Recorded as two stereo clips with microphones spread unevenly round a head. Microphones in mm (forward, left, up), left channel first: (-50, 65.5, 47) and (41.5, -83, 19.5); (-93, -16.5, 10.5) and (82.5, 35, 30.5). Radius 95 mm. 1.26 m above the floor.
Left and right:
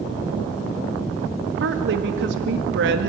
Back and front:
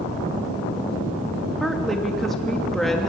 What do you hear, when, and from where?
1.6 s a woman speaking: 75° right, 1.9 m